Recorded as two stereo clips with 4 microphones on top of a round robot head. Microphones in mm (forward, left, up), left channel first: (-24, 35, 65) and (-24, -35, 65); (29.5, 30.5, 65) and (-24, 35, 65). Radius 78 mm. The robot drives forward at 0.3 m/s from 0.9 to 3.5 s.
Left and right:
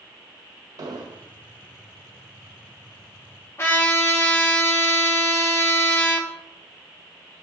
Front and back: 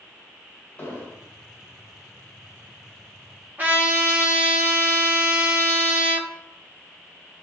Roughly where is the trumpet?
Behind left.